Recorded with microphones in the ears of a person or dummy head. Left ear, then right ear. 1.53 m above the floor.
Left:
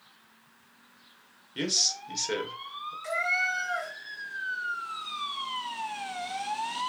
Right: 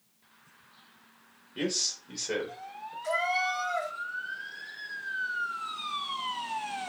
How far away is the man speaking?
About 1.1 m.